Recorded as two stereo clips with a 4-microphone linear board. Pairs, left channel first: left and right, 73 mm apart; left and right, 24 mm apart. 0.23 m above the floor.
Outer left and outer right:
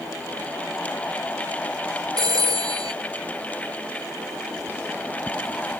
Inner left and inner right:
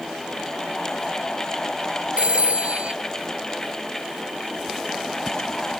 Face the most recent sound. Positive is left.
turn(degrees=-60)  # may be behind; listen again after turning